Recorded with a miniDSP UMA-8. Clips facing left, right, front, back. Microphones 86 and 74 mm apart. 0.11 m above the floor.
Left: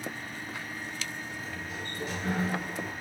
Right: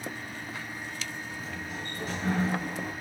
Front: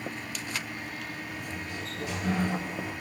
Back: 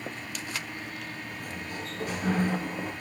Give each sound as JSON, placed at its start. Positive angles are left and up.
{"t": 1.3, "sound": "a sliding door", "azimuth_deg": -140, "distance_m": 3.0}